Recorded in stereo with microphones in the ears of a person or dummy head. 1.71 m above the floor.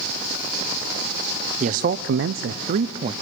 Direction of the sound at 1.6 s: 35° right (ahead or behind).